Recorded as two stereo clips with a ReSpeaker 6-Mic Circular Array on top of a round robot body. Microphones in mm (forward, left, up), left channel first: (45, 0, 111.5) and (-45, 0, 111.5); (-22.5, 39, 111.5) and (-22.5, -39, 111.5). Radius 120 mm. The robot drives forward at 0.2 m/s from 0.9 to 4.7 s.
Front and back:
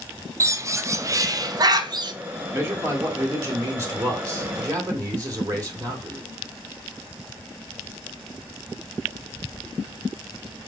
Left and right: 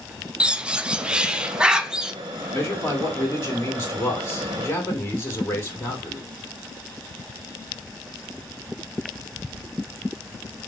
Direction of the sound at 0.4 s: 160° right.